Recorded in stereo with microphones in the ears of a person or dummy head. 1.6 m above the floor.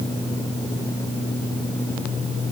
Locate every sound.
Only background noise.